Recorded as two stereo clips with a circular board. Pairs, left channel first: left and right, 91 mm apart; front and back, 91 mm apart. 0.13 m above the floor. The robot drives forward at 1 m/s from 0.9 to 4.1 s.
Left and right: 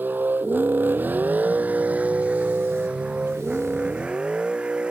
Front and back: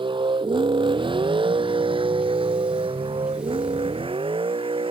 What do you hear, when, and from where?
0.0 s a vehicle: 160° right; by 4.9 s 170° right